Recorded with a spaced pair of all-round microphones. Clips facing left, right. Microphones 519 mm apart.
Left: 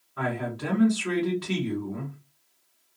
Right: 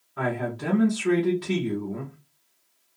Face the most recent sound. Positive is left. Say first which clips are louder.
# right 2 dB
turn(degrees=-5)  # may be behind; listen again after turning